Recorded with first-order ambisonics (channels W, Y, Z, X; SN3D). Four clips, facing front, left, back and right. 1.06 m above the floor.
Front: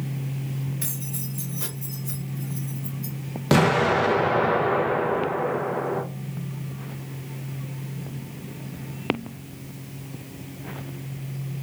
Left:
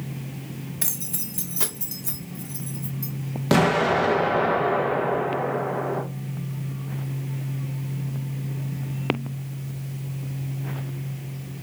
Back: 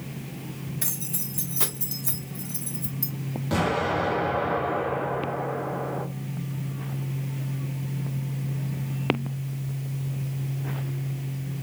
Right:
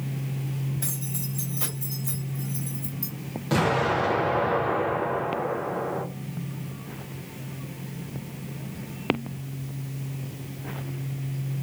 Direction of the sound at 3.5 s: 40° left.